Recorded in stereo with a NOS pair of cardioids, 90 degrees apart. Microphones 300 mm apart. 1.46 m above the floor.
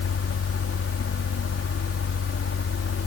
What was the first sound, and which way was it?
A fan, 45° left.